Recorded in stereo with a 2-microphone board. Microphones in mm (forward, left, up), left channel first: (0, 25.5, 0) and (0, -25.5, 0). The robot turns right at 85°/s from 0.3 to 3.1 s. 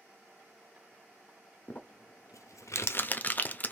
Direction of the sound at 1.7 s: 25° left (ahead or behind).